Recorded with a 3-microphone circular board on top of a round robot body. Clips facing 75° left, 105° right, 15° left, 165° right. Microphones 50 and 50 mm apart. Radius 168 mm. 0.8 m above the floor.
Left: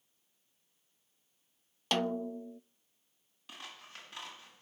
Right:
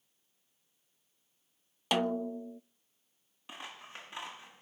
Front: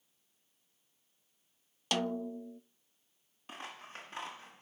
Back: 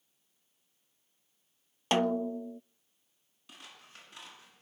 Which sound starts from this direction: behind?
A snare drum, at 1.9 s.